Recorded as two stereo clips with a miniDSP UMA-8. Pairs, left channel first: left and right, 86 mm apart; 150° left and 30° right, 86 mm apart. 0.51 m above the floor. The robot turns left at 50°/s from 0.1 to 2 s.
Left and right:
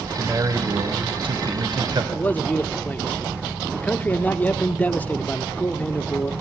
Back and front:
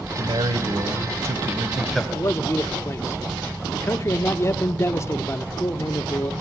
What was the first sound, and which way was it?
A man speaking, 30° right.